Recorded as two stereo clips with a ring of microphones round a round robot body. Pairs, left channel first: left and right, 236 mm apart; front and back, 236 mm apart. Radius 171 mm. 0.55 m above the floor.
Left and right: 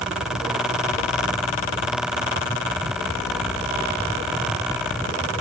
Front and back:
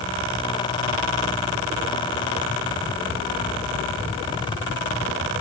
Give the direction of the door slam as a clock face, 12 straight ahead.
No door slam in this recording.